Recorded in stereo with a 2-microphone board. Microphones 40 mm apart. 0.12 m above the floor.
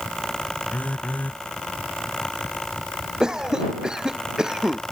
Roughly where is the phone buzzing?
Left.